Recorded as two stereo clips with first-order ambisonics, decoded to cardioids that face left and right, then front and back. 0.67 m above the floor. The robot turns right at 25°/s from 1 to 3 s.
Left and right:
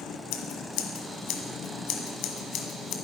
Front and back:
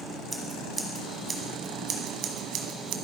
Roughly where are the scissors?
Left.